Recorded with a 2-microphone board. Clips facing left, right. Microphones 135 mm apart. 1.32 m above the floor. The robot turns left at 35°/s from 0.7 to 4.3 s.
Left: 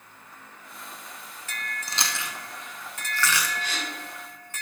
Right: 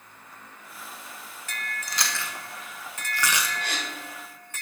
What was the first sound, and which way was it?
Chewing, 30° left (ahead or behind).